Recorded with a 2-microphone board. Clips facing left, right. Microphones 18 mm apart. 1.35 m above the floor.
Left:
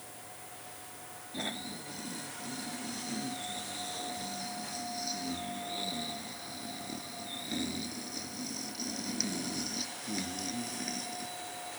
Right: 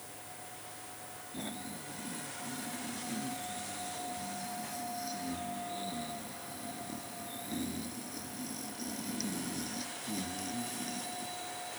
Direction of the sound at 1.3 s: 25° left (ahead or behind).